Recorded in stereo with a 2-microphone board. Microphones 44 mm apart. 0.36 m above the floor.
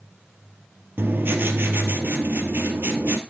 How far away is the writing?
About 2 m.